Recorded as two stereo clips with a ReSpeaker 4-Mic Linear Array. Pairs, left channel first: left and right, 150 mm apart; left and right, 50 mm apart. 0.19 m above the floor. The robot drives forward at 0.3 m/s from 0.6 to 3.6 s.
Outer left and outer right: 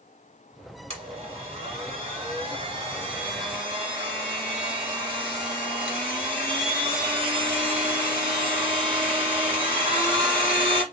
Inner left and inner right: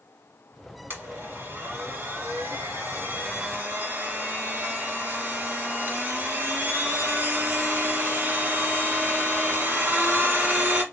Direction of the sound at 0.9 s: 45° right (ahead or behind).